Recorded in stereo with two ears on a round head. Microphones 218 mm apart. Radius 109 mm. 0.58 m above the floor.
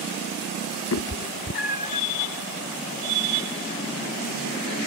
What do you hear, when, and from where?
0.9 s a cat meowing: 55° left (ahead or behind); by 2.0 s 30° left (ahead or behind)